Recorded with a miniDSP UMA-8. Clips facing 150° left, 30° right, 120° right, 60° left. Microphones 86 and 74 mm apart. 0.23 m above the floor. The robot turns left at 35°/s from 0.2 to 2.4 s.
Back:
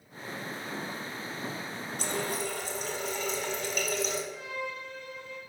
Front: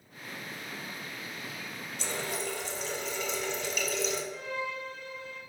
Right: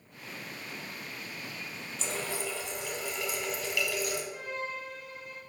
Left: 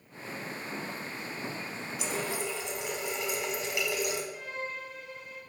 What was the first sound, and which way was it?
A running tap, 135° left.